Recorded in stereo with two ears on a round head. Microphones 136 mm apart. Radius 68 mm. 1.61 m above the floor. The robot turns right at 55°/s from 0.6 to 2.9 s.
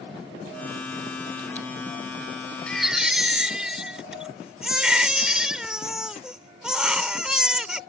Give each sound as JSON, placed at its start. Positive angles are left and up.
{"t": 2.7, "sound": "a baby crying", "side_deg": 10}